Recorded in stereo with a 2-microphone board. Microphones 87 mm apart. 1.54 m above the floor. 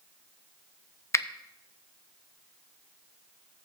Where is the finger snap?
35° left (ahead or behind), 0.5 m.